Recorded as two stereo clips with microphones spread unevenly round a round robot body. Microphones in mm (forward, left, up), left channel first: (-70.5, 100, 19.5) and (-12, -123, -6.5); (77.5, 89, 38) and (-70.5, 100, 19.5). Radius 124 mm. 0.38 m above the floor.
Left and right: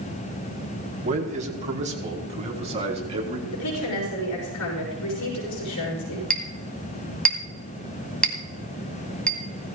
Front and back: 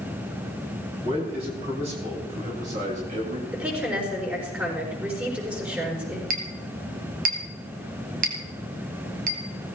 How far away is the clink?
About 2 m.